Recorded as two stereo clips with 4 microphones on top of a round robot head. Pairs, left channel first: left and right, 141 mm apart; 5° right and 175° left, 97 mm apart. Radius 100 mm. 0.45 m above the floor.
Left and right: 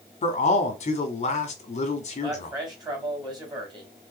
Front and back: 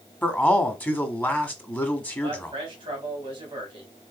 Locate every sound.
0.2 s a man speaking: 65° left, 1.3 m
2.2 s a man speaking: 145° right, 2 m